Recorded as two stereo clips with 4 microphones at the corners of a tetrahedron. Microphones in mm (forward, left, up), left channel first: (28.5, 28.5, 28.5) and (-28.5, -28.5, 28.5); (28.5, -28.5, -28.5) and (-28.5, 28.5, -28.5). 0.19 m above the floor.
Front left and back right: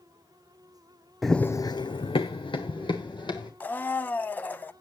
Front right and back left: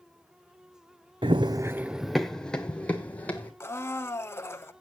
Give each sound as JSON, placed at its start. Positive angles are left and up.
{"t": 1.2, "sound": "running footsteps", "azimuth_deg": 135, "distance_m": 0.7}
{"t": 3.6, "sound": "a blender", "azimuth_deg": -10, "distance_m": 0.6}